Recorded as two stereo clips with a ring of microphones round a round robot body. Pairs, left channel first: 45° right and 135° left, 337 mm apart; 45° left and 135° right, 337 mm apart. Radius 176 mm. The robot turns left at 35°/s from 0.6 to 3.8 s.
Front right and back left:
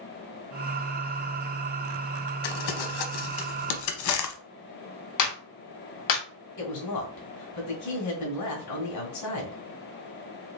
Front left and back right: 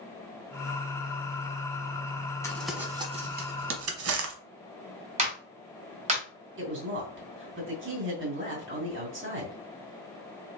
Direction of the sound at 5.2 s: 65° right.